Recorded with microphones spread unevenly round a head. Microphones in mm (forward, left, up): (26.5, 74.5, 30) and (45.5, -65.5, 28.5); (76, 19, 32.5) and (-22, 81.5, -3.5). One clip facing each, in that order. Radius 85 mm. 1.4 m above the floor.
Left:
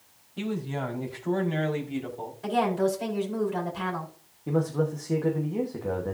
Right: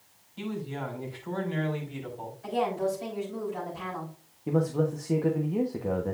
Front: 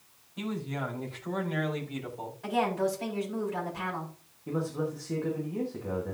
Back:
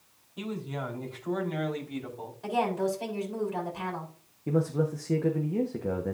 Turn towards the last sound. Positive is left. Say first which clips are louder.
# even, back 4 dB
turn(degrees=-165)